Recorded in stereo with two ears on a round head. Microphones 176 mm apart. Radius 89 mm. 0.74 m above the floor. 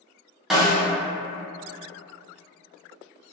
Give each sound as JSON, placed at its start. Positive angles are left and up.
{"t": 0.5, "sound": "a snare drum", "side_deg": 0, "distance_m": 0.6}